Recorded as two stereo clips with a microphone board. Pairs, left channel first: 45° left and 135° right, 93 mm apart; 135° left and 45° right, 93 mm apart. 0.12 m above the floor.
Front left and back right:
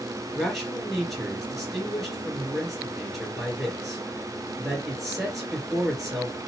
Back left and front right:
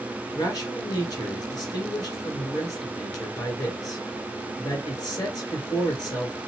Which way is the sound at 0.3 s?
135° left.